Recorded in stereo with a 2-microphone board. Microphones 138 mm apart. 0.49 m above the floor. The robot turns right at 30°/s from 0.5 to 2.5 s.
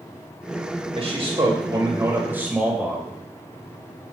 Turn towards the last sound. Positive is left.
turn(degrees=-15)